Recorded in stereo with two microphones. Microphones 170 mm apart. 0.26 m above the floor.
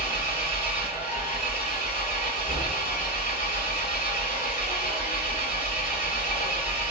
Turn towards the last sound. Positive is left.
turn(degrees=65)  # may be behind; listen again after turning